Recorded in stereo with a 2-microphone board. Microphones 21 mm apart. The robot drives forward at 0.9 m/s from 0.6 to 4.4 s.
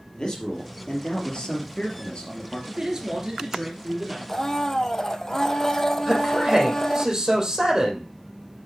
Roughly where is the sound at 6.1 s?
Right.